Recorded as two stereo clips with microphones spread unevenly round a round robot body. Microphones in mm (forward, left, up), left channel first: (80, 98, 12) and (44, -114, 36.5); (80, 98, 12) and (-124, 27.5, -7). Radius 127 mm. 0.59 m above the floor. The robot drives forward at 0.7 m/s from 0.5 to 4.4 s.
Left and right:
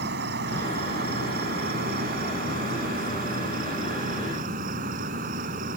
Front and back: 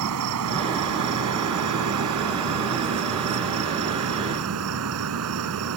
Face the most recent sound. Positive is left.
turn(degrees=-160)